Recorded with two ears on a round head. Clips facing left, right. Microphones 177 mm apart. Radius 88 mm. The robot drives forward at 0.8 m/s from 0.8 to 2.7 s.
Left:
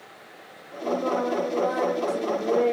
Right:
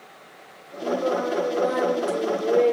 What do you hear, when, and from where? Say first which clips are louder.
0.8 s singing: right 1 dB; 30° right (ahead or behind), 9.5 m; by 2.7 s 35° right (ahead or behind), 8 m